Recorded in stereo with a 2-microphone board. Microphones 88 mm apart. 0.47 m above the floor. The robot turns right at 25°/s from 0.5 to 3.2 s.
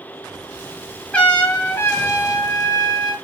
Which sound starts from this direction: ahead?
A trumpet, at 1.1 s.